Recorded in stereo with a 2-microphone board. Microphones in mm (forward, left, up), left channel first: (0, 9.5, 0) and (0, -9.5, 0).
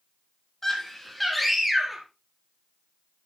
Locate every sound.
0.6 s a scream: 10° left (ahead or behind), 4 m; by 2.0 s 15° right (ahead or behind), 3 m